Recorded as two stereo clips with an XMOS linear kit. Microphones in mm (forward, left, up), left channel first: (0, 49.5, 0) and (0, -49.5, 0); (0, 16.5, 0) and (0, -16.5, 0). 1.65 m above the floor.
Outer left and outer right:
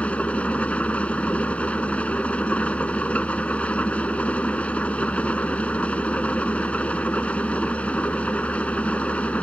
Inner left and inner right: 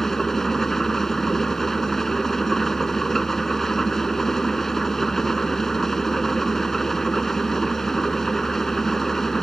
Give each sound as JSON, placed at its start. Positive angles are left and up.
{"t": 0.0, "sound": "an engine running", "side_deg": 15}